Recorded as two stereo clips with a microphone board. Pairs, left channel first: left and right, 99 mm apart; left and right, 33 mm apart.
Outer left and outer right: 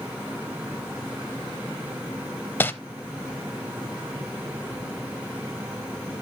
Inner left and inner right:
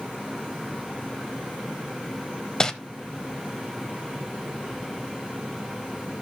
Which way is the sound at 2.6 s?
20° left (ahead or behind).